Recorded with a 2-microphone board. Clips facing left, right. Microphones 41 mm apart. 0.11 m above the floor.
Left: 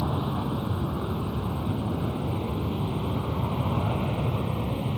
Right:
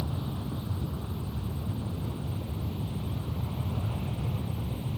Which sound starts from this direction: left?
An aircraft, at 0.0 s.